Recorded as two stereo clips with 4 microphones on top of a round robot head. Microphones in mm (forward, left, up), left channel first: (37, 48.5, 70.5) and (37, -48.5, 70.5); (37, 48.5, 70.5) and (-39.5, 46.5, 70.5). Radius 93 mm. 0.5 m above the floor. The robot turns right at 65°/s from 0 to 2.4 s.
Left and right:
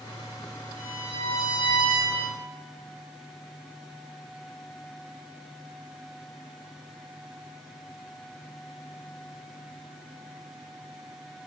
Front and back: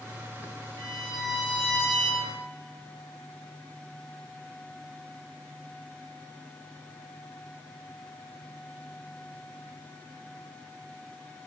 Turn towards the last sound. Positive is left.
turn(degrees=-30)